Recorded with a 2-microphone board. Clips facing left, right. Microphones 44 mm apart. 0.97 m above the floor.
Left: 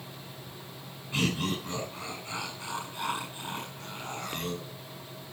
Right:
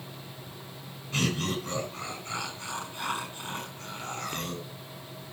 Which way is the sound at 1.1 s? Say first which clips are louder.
Even; 15° left (ahead or behind).